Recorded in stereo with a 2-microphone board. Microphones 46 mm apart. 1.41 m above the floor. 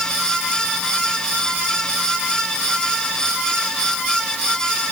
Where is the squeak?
No squeak in this recording.